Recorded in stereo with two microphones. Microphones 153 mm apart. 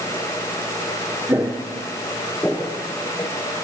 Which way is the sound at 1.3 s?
15° right (ahead or behind).